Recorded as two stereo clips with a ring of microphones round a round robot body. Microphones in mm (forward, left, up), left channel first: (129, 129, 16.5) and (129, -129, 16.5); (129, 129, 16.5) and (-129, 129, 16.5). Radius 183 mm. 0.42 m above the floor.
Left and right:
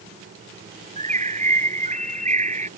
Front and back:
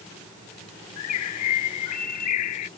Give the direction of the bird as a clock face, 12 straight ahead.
1 o'clock.